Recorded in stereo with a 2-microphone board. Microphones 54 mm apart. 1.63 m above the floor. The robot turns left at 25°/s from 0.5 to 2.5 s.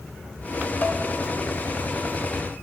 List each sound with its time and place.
0.8 s dishes clattering: 35° left (ahead or behind), 1.0 m